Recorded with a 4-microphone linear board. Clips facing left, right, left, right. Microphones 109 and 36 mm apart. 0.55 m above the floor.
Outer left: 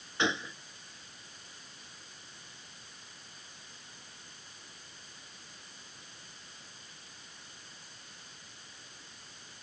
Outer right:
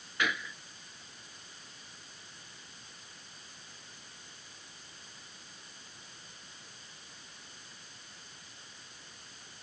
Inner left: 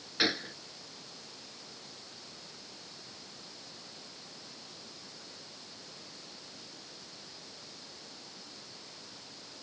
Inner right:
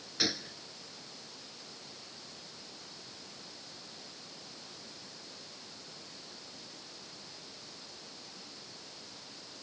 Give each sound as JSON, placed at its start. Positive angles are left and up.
{"t": 0.2, "sound": "a gunshot", "side_deg": 25}